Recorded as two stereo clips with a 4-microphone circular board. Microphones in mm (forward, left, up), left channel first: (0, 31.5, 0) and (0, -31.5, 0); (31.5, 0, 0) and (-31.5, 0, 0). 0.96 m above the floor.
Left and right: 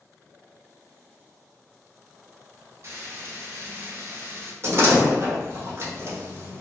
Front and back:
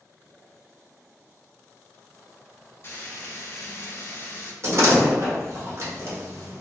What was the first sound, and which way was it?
Frying, 45° right.